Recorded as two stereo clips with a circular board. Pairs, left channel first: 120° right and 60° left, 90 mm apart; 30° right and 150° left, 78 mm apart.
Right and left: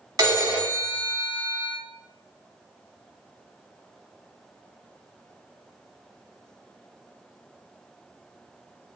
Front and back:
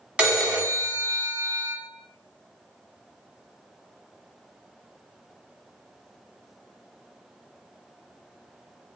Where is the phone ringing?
80° left, 0.8 m.